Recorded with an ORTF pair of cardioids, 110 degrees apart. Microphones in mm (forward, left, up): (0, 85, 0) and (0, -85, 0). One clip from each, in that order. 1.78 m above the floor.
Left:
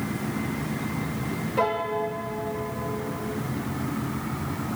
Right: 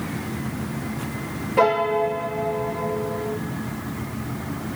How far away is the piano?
About 0.8 m.